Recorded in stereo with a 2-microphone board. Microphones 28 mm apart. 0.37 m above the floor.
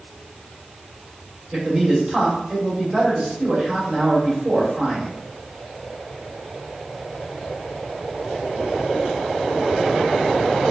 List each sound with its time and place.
1.5 s a man speaking: 25° right (ahead or behind), 1.6 m